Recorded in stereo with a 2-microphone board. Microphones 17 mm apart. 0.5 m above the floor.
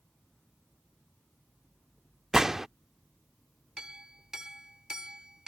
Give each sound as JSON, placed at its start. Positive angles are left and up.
{"t": 2.3, "sound": "a gunshot", "side_deg": -25}
{"t": 3.8, "sound": "a clink", "side_deg": -35}